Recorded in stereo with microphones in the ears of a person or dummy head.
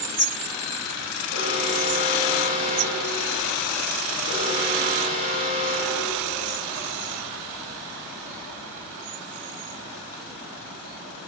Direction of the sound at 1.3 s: 60° left (ahead or behind).